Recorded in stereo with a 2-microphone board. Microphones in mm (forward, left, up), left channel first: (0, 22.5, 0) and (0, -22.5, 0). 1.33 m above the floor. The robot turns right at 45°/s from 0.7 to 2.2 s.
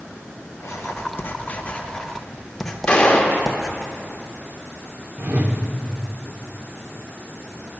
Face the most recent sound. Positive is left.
turn(degrees=-35)  # may be behind; listen again after turning